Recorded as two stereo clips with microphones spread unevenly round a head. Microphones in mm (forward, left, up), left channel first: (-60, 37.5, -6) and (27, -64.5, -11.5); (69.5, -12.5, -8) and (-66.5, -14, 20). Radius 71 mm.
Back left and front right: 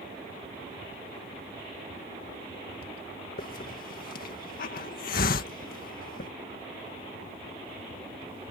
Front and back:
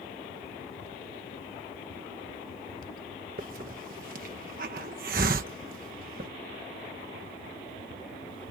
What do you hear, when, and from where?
3.4 s a hiss: 150° left